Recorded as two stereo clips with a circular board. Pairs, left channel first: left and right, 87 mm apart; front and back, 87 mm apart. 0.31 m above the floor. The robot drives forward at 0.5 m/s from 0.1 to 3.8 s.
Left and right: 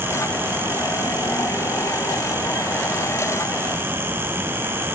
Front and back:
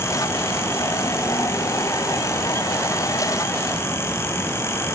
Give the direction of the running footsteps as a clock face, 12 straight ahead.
I don't hear running footsteps.